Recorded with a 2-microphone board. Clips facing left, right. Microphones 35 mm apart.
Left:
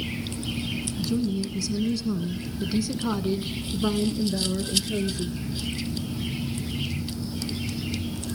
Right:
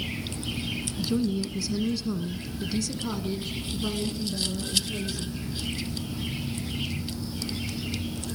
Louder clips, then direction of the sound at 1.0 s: Even; 25° right (ahead or behind).